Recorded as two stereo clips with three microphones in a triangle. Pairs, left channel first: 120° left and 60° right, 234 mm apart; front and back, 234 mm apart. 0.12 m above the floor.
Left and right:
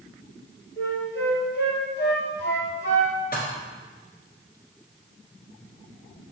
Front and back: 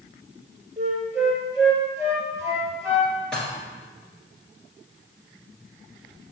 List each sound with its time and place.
0.8 s a flute: 100° left, 2 m
3.3 s dishes clattering: 85° left, 1.5 m